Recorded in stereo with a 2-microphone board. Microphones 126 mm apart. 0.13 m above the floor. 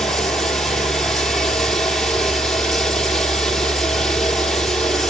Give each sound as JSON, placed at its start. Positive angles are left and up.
{"t": 0.0, "sound": "running water", "side_deg": 0, "distance_m": 1.4}